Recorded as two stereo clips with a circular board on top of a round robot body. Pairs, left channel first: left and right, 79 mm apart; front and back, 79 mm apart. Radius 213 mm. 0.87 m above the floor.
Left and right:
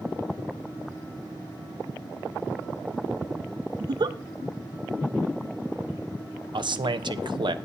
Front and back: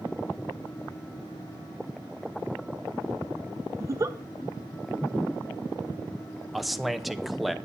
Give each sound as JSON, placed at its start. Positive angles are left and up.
{"t": 3.8, "sound": "a giggle", "azimuth_deg": -125, "distance_m": 0.6}
{"t": 6.5, "sound": "a man speaking", "azimuth_deg": -90, "distance_m": 0.9}